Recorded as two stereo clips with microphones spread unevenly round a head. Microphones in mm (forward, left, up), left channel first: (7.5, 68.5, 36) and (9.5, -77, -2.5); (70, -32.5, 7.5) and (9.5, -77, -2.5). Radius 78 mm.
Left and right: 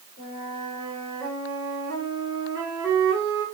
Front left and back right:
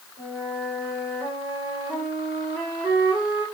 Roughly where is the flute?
Behind left.